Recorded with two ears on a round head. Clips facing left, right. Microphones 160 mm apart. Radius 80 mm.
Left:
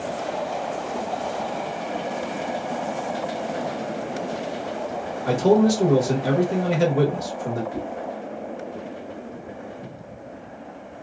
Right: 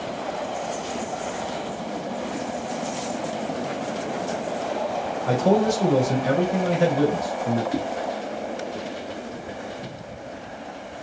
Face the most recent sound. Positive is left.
turn(degrees=-75)  # may be behind; listen again after turning